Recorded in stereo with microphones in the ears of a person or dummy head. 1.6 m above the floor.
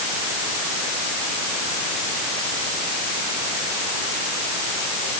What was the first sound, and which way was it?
Only background noise.